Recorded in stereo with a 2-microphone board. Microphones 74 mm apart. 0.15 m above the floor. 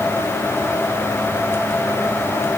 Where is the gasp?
I don't hear a gasp.